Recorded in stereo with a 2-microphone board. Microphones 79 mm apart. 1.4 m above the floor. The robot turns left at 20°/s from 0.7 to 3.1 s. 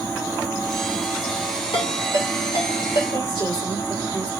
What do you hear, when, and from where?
1.7 s a ringtone: 65° left (ahead or behind), 1.8 m; by 3.0 s 80° left, 1.8 m
3.1 s a woman speaking: 75° left (ahead or behind), 3 m